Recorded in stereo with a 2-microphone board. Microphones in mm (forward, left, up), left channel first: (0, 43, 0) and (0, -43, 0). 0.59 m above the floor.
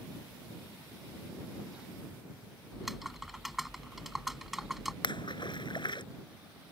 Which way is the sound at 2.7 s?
Centre (ahead or behind).